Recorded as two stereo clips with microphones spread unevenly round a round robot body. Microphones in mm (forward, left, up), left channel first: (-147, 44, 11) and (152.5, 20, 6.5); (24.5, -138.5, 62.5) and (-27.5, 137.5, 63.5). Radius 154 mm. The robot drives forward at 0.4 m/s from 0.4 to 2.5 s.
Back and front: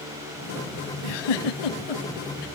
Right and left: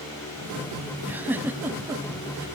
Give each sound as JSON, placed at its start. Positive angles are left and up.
{"t": 1.0, "sound": "a giggle", "azimuth_deg": -175, "distance_m": 0.7}